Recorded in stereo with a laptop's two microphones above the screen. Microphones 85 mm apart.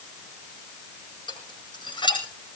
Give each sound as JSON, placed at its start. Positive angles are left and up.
{"t": 1.3, "sound": "dishes clattering", "side_deg": 75, "distance_m": 5.5}